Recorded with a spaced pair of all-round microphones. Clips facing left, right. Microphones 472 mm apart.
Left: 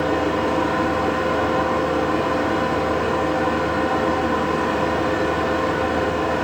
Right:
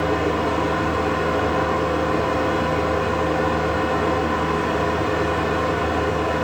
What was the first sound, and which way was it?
A fan, 5° left (ahead or behind).